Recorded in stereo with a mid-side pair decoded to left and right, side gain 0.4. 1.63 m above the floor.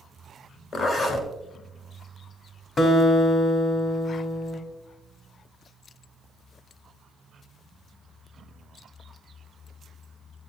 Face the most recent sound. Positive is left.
turn(degrees=50)